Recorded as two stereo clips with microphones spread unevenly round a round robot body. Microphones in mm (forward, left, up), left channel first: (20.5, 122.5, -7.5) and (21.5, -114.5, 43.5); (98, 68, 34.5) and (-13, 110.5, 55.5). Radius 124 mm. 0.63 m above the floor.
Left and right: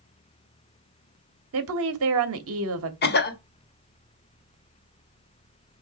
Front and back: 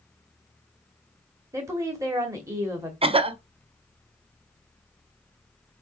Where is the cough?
120° left, 1.2 m.